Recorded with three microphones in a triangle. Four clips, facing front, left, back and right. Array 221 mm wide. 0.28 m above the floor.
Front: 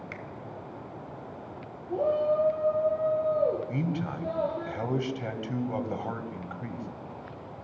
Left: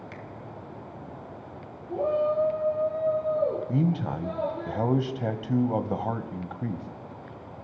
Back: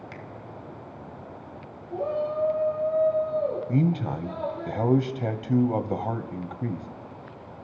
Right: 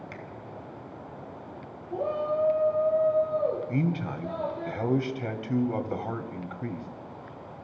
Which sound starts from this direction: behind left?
A man speaking, at 3.7 s.